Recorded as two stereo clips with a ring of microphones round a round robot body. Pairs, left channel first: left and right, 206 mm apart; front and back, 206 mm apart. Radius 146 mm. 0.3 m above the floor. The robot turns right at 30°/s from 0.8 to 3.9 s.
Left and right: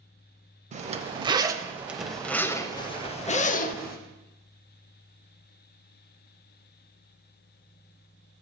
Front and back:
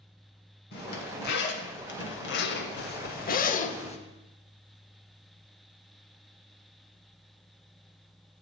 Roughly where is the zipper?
Ahead right.